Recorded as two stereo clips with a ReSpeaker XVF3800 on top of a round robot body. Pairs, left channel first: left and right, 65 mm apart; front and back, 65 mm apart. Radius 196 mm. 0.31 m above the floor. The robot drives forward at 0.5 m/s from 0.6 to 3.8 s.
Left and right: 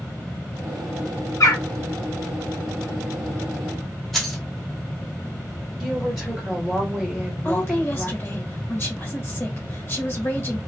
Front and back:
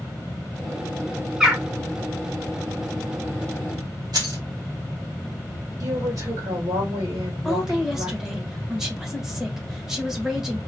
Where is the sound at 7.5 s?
100° left, 1.6 m.